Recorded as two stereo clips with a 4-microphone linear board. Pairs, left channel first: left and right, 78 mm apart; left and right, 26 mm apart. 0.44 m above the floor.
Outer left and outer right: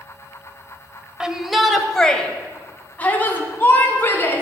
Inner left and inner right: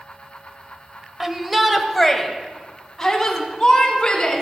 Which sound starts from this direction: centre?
A shout, at 1.2 s.